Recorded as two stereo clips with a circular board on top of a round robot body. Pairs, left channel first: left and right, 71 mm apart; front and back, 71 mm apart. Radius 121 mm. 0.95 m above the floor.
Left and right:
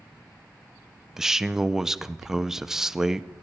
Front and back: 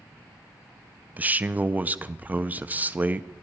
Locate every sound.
1.2 s a man speaking: 165° right, 0.6 m